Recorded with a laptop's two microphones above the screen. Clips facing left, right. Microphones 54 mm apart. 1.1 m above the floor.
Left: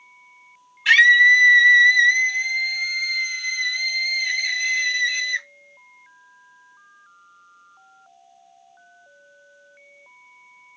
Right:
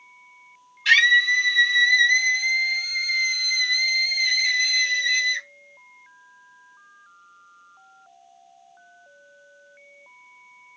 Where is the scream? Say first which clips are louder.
Left 5 dB; 15° left (ahead or behind), 1.0 m.